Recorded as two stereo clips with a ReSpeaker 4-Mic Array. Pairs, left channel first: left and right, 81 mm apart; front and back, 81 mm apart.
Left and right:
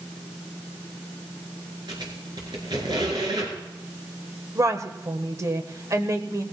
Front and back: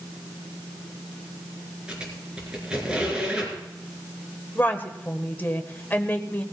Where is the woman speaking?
60° right, 1.4 m.